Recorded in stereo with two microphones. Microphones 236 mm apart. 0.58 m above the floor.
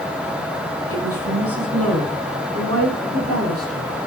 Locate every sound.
0.9 s a woman speaking: 80° right, 6.5 m; by 4.1 s 85° right, 8 m